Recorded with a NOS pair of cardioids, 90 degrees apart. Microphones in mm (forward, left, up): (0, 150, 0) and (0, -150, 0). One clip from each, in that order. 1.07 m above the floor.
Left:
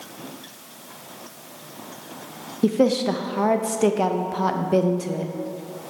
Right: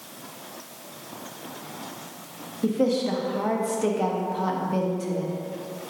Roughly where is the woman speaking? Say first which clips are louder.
Left 4 dB; ahead left.